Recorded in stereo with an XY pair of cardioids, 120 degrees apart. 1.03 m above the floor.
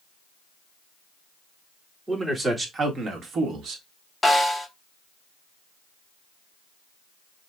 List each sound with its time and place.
2.1 s a man speaking: 15° right, 1.7 m; by 3.8 s 65° right, 1.6 m
4.2 s a snare drum: 10° left, 1.4 m